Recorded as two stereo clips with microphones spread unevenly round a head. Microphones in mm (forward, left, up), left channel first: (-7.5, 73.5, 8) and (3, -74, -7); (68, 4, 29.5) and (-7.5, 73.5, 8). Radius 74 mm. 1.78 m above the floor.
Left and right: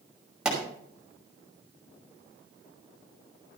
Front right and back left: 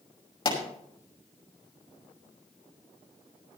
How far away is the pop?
About 5 m.